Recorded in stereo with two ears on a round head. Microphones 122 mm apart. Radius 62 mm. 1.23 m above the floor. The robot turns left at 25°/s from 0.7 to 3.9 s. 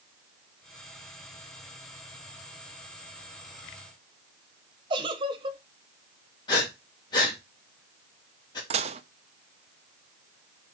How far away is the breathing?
About 2.5 m.